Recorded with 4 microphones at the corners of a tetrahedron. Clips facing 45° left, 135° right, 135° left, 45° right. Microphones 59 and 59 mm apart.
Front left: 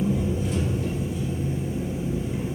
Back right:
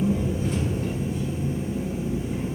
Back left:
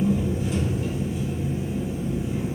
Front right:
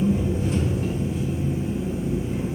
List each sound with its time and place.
0.0 s an engine running: 90° right, 1.0 m